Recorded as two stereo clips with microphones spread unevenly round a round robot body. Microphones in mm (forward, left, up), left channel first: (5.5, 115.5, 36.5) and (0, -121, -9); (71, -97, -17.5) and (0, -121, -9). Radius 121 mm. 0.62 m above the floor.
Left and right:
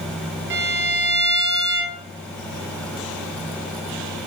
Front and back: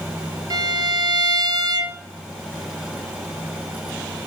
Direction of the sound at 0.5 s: 135° right.